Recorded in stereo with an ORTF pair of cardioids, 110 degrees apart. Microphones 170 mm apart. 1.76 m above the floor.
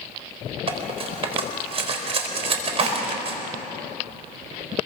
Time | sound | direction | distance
0.7 | cutlery clinking | 40° right | 4 m
2.8 | dishes clattering | 45° right | 6.5 m